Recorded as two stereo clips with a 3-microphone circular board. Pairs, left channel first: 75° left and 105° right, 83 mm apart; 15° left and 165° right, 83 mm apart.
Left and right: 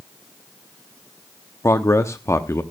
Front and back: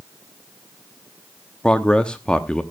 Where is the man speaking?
85° left, 0.8 m.